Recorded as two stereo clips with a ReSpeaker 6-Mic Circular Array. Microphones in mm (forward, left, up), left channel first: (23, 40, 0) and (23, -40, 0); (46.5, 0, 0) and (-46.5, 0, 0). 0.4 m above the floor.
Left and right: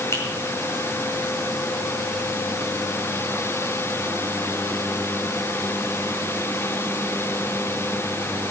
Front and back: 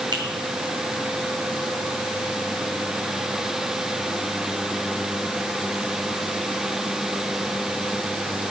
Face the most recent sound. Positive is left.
turn(degrees=145)